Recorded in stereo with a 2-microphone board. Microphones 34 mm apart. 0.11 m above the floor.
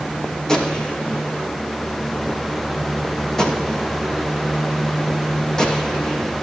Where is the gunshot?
20° left (ahead or behind), 5.5 m.